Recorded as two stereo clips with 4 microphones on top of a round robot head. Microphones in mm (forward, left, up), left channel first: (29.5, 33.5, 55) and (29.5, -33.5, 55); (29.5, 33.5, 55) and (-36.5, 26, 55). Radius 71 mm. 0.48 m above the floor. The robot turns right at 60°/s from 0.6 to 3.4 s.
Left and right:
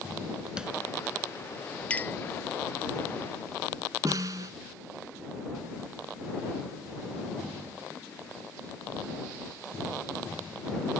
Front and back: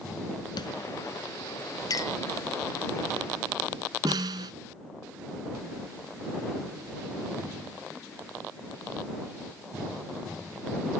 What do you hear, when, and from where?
0.6 s tapping: 10° right; by 0.7 s 5° right
1.9 s a clink: 20° left; by 2.2 s 40° left
4.0 s a snare drum: 140° right